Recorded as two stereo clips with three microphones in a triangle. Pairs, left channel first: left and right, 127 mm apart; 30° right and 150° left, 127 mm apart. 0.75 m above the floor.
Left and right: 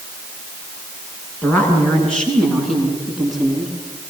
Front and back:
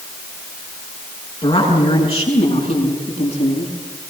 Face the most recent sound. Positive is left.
turn(degrees=0)